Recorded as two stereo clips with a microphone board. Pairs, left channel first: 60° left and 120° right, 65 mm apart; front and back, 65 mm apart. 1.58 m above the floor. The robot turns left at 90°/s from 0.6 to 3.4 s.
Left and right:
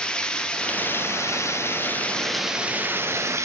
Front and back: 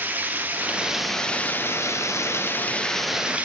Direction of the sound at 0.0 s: 130° left.